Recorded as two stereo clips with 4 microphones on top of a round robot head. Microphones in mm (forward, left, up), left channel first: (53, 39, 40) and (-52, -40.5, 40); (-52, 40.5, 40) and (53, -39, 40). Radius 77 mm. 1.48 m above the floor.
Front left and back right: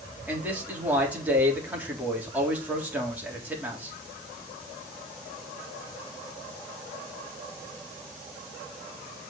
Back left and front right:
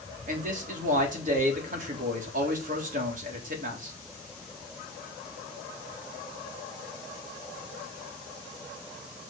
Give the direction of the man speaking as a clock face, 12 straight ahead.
2 o'clock.